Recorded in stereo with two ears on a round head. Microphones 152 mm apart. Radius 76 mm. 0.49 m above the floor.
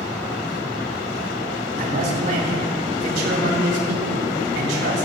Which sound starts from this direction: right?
A man speaking, at 1.8 s.